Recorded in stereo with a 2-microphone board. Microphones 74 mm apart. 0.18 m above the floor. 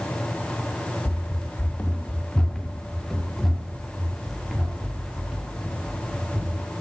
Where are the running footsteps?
40° left (ahead or behind), 1.2 m; by 6.6 s 10° right (ahead or behind), 5 m.